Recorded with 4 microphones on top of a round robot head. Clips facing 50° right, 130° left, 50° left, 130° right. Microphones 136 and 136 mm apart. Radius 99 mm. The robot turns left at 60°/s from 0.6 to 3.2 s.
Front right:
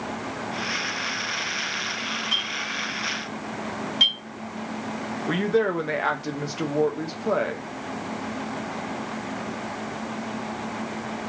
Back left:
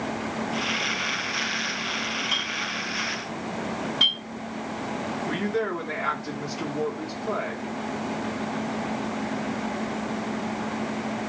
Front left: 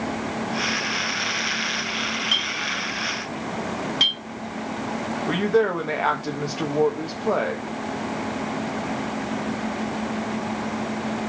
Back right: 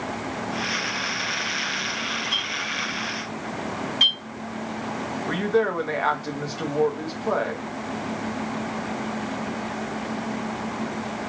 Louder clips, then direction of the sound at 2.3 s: Back left 1 dB, front left 2 dB; 50° left.